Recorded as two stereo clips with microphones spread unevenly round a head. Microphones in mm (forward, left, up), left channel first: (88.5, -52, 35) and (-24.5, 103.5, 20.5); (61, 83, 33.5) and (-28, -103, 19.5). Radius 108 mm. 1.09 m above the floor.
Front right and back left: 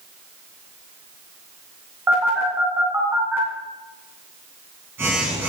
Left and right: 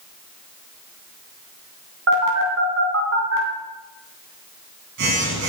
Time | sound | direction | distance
2.1 | a phone buzzing | 150° right | 2.5 m